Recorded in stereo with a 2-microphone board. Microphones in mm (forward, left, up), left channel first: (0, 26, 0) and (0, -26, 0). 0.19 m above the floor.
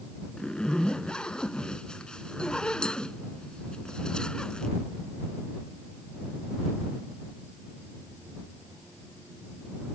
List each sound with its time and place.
0.4 s a zipper: 15° left (ahead or behind)